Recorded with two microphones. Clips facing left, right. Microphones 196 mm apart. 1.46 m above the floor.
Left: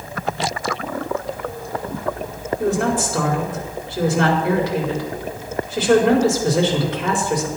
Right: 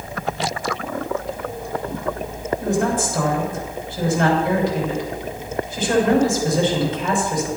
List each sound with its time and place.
2.6 s a woman speaking: 85° left, 5 m